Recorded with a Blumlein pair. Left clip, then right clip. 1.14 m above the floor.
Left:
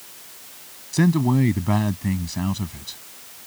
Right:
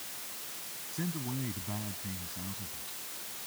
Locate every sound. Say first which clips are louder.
0.9 s a man speaking: left 18 dB; 50° left